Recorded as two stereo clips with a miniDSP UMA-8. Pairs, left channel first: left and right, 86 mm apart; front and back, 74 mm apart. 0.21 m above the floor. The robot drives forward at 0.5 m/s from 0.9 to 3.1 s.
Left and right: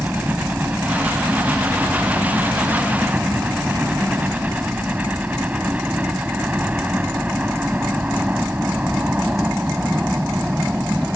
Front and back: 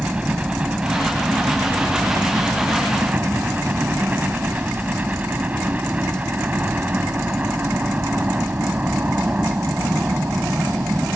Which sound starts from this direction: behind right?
A helicopter, at 0.0 s.